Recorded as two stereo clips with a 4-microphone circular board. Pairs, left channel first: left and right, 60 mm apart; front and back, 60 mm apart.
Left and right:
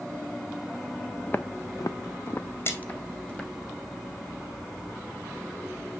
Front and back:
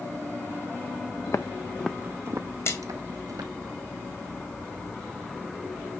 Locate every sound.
1.3 s footsteps: 30° left, 0.9 m; by 3.5 s 165° left, 2.0 m
2.6 s a splash: 40° left, 2.5 m